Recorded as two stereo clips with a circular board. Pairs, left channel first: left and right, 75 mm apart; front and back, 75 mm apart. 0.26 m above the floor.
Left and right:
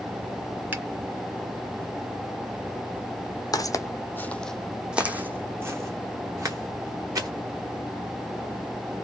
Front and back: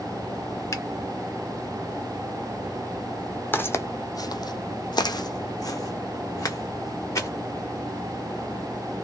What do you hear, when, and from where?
0.7 s a finger snap: 30° right, 1.2 m
3.5 s footsteps: 60° left, 0.8 m; by 7.3 s 50° right, 1.9 m